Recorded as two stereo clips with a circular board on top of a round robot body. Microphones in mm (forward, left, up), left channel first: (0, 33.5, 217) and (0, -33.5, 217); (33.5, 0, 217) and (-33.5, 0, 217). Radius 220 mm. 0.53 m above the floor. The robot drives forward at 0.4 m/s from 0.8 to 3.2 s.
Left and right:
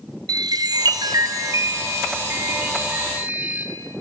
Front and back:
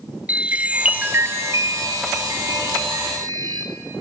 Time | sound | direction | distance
0.3 | a chime | 110° right | 0.5 m